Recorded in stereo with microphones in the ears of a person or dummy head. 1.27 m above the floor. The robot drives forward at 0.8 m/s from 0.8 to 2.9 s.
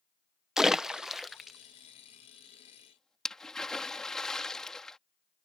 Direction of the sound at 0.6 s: 5° right (ahead or behind).